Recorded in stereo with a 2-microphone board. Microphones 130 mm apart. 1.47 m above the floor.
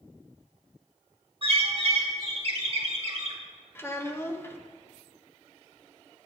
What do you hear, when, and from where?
1.4 s a bird: 45° right (ahead or behind), 1.3 m
3.8 s a child speaking: 20° left (ahead or behind), 0.7 m